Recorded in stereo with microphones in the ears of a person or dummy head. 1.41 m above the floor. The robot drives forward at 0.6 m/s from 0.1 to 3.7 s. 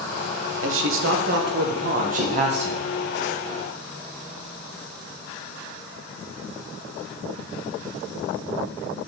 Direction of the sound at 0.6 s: 70° right (ahead or behind).